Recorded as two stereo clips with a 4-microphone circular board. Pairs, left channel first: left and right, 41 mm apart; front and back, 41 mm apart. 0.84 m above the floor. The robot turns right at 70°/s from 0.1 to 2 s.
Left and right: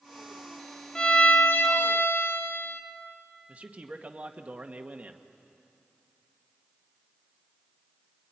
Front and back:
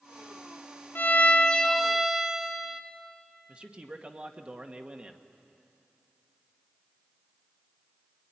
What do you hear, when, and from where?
0.9 s a violin: 25° left, 1.7 m; by 2.8 s 100° left, 1.7 m
3.5 s a man speaking: 130° right, 1.3 m